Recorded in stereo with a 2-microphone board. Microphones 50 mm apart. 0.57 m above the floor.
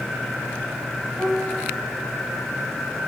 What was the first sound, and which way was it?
A piano, 40° right (ahead or behind).